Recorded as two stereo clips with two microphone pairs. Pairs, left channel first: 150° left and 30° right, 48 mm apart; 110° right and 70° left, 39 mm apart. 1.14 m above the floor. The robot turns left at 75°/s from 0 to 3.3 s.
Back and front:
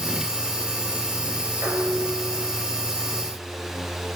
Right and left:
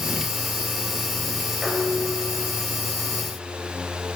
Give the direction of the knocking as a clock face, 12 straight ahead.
I don't hear knocking.